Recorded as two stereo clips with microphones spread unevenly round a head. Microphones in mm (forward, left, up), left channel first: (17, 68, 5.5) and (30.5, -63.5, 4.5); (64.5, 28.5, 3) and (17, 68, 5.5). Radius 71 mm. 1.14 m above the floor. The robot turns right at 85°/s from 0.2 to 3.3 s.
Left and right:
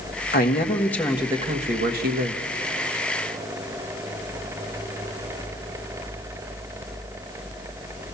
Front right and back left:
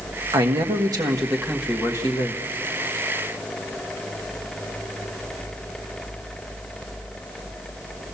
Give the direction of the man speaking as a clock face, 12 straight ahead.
8 o'clock.